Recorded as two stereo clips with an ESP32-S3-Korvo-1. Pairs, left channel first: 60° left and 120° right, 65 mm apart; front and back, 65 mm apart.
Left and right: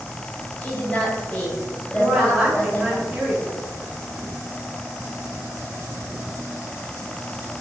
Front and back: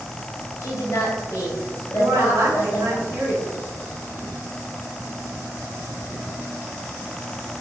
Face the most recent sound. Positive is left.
turn(degrees=155)